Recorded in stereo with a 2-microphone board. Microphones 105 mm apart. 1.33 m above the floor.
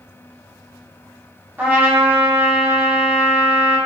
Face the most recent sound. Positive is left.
turn(degrees=-15)  # may be behind; listen again after turning